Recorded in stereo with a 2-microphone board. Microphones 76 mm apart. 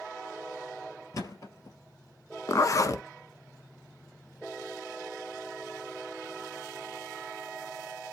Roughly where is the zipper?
Left.